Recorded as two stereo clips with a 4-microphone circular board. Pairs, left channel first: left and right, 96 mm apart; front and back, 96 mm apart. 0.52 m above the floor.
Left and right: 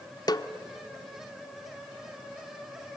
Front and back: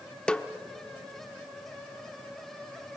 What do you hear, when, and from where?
0.3 s a snare drum: 80° left, 0.8 m